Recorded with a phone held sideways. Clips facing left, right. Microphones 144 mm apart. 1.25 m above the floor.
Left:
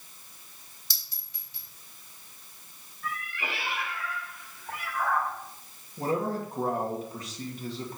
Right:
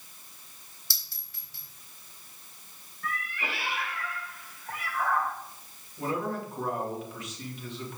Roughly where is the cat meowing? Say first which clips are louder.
Even; centre.